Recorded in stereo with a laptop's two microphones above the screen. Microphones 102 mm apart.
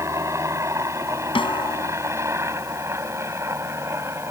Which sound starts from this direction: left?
A snare drum, at 1.4 s.